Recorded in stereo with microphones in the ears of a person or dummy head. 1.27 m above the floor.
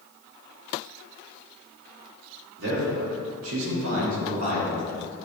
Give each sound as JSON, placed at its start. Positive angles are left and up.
{"t": 2.6, "sound": "a man speaking", "side_deg": -55, "distance_m": 1.1}